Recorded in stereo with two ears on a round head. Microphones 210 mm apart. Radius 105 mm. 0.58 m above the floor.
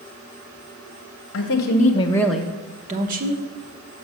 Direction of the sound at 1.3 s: 50° left (ahead or behind).